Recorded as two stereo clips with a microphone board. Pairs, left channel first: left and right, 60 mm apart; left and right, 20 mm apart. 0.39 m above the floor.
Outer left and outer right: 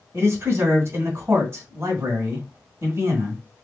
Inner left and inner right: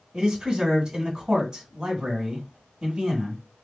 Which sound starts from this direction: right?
A man speaking, at 0.1 s.